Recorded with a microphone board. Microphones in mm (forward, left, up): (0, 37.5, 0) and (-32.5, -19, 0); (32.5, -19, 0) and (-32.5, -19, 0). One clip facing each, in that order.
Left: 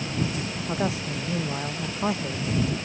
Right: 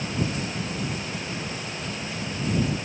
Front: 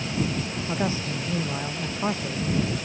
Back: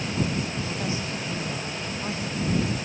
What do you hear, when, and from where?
0.7 s a man speaking: 55° left